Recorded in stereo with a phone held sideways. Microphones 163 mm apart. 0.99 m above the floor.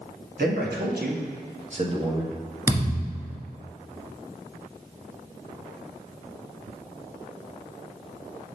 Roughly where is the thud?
Centre.